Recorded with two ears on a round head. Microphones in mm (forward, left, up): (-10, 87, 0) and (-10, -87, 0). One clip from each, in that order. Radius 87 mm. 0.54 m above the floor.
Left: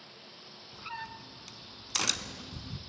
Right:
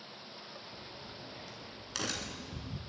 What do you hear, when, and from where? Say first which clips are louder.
0.7 s a crack: left 6 dB; 55° left (ahead or behind), 1.0 m